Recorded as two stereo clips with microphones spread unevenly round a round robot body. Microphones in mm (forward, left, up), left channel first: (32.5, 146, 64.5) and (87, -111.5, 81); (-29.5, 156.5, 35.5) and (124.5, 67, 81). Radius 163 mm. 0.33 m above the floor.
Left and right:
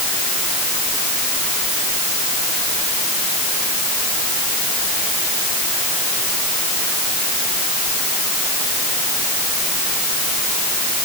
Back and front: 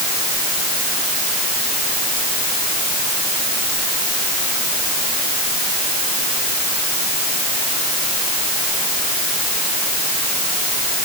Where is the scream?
No scream in this recording.